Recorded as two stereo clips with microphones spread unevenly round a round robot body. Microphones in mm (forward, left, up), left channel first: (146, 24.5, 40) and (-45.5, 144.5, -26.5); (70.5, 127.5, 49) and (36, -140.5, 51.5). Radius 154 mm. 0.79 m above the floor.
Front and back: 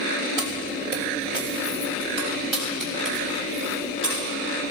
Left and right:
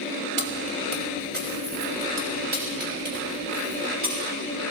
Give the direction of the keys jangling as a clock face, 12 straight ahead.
5 o'clock.